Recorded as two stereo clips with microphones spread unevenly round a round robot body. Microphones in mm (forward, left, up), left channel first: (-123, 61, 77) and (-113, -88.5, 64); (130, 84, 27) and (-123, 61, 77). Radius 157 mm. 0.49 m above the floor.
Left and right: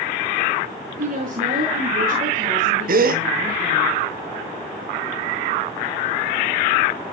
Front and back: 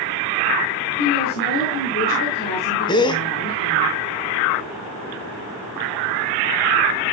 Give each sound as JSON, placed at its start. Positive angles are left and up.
{"t": 1.0, "sound": "a woman speaking", "azimuth_deg": -50, "distance_m": 5.5}
{"t": 2.9, "sound": "a gasp", "azimuth_deg": -65, "distance_m": 0.8}